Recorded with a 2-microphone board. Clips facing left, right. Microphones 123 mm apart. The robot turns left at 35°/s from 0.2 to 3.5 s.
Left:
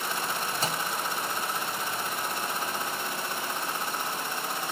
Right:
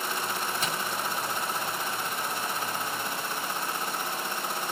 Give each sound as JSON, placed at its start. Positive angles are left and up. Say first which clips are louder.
{"t": 0.6, "sound": "a microwave", "louder": "left 1 dB", "side_deg": 35, "distance_m": 0.8}